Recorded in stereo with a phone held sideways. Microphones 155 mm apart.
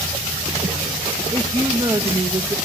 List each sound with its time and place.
1.3 s a woman speaking: 35° right (ahead or behind), 1.3 m